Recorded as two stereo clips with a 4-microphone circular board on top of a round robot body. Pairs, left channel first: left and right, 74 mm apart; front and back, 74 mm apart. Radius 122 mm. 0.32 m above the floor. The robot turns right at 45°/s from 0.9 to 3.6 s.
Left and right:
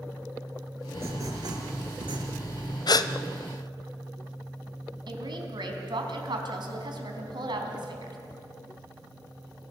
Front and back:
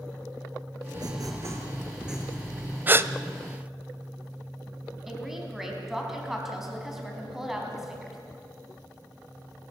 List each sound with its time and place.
0.9 s writing: 150° right, 3 m; by 2.8 s 70° right, 3 m
2.9 s a gasp: 115° left, 0.9 m; by 3.1 s 125° left, 0.9 m
5.1 s a woman speaking: 95° right, 4 m